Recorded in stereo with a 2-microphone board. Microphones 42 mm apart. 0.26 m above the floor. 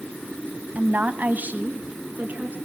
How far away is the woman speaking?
About 1.3 m.